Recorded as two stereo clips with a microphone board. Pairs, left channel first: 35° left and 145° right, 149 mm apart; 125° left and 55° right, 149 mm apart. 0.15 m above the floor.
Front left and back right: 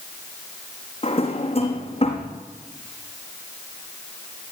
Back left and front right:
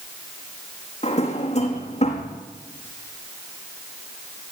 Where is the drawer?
85° left, 4.5 m.